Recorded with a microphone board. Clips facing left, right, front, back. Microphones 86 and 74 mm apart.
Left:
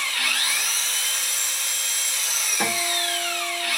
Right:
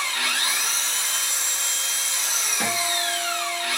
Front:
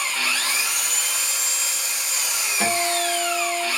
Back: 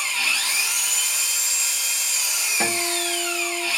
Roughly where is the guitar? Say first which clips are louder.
Even, front 4 dB; behind left.